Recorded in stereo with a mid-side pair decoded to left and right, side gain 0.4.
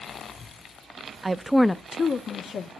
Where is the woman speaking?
30° right, 0.6 m; by 2.7 s 65° left, 1.2 m.